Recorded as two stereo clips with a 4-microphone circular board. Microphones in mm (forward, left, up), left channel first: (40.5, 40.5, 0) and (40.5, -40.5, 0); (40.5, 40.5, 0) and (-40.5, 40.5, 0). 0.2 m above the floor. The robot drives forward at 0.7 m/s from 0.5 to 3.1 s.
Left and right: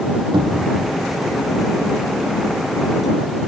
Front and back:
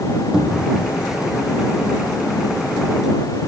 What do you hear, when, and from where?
0.3 s a cupboard door: 100° right, 3 m; by 0.8 s 105° right, 3 m